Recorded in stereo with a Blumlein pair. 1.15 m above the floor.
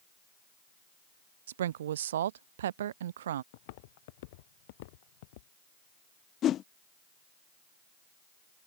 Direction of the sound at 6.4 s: 30° left.